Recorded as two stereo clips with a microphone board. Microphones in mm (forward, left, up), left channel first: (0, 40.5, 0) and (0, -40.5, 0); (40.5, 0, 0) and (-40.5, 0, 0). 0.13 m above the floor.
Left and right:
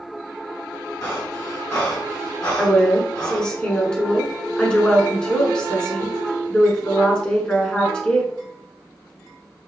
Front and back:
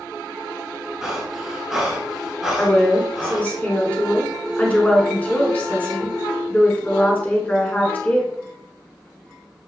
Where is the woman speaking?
30° left, 1.1 m.